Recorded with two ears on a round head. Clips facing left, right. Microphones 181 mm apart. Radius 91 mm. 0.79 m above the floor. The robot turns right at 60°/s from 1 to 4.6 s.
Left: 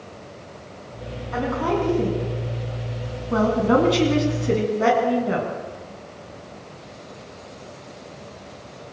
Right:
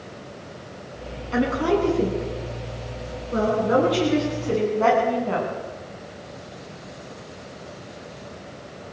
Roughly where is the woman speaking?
Ahead right.